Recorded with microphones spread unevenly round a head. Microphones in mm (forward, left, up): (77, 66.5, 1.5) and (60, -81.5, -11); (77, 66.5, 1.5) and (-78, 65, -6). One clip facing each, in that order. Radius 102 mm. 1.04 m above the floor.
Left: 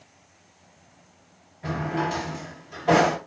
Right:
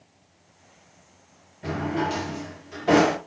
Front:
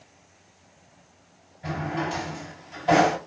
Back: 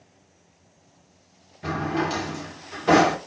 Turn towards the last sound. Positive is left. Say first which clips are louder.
# right 1 dB, back 3 dB
turn(degrees=-165)